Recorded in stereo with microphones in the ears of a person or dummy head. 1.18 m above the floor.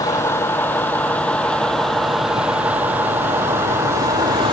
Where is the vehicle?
15° left (ahead or behind); by 4.5 s 20° right (ahead or behind).